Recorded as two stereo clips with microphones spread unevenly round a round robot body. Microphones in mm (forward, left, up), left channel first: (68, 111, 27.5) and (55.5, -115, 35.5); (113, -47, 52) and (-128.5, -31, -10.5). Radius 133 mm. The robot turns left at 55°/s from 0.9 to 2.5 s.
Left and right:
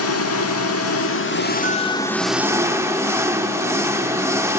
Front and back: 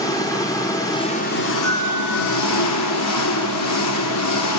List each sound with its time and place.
0.0 s an engine running: 70° left, 1.2 m; by 4.6 s 15° right, 1.2 m
1.6 s a bell: 10° right, 8.5 m; by 2.4 s 50° right, 8.5 m